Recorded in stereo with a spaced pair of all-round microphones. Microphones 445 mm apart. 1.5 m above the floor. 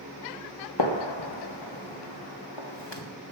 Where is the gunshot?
65° left (ahead or behind), 1.6 m.